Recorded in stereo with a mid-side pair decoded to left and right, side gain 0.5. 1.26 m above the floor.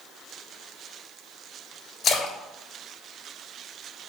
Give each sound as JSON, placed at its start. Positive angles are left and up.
{"t": 2.0, "sound": "a splash", "azimuth_deg": 50, "distance_m": 3.0}